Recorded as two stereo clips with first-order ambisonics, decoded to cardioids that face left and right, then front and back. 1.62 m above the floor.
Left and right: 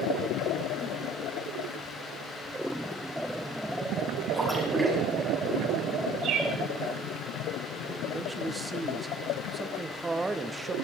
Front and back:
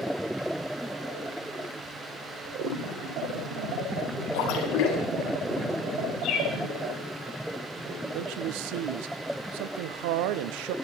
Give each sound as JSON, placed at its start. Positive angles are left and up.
{"t": 4.3, "sound": "a splash", "azimuth_deg": -5, "distance_m": 3.5}
{"t": 6.2, "sound": "a bird", "azimuth_deg": -45, "distance_m": 3.5}
{"t": 8.1, "sound": "a man speaking", "azimuth_deg": -170, "distance_m": 1.0}